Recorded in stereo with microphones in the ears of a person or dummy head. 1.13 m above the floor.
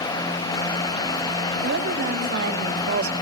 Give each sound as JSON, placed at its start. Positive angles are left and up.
{"t": 1.6, "sound": "a woman speaking", "side_deg": -70, "distance_m": 4.0}